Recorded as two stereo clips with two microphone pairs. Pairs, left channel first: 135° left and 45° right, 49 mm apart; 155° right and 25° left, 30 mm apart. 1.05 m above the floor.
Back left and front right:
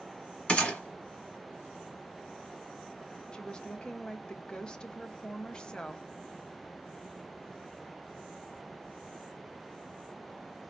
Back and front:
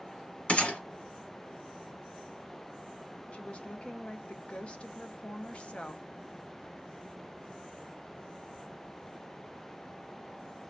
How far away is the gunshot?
About 1.3 m.